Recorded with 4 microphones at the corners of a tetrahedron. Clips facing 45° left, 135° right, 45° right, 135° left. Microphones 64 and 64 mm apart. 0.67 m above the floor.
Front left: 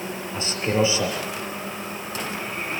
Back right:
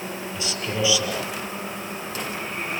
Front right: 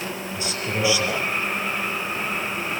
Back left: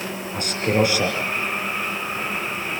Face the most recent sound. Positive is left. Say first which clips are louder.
# front left 6 dB, back left 8 dB
turn(degrees=100)